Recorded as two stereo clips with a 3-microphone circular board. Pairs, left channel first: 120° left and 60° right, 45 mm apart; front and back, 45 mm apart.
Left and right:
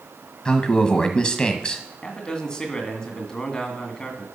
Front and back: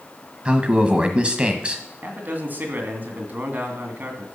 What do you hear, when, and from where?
0.5 s a man speaking: 160° left, 1.4 m
2.0 s a man speaking: 170° right, 2 m